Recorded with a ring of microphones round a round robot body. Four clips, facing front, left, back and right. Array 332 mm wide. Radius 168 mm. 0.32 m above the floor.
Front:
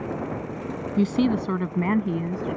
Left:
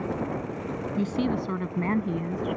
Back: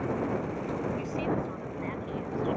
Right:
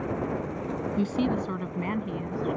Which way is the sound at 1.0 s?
Straight ahead.